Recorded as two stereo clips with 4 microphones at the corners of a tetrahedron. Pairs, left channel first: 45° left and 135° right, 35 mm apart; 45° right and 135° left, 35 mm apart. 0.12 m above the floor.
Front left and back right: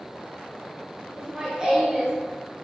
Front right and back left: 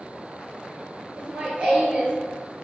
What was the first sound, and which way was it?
Laughter, 170° left.